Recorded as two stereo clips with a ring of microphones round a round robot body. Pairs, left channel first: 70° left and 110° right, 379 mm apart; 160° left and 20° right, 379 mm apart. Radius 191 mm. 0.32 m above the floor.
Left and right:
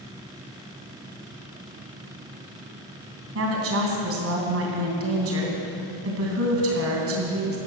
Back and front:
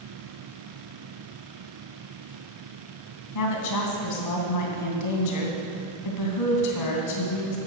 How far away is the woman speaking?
About 2.5 m.